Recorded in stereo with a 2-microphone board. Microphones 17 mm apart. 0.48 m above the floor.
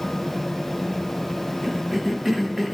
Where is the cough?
15° right (ahead or behind), 1.1 m.